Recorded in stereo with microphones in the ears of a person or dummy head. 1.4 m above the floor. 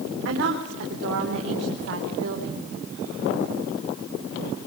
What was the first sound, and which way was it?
A woman speaking, 70° right (ahead or behind).